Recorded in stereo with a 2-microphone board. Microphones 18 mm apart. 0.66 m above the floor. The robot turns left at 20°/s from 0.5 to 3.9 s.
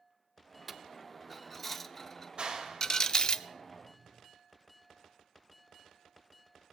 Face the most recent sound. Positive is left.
turn(degrees=-40)  # may be behind; listen again after turning